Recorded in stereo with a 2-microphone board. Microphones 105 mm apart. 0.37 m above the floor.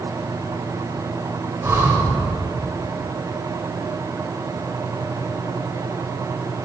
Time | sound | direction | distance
1.6 | breathing | 25° right (ahead or behind) | 1.7 m